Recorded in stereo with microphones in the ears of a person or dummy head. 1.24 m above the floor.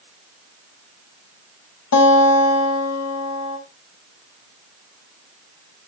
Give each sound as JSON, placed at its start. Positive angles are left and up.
{"t": 1.9, "sound": "a guitar", "side_deg": 80, "distance_m": 5.0}